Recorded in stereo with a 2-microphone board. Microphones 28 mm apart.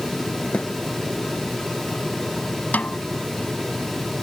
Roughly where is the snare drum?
Left.